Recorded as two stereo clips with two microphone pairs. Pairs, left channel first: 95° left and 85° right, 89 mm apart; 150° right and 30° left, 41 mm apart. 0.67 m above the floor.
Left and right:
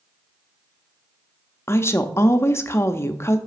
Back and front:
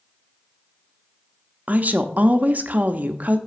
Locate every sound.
1.7 s a woman speaking: 55° left, 0.6 m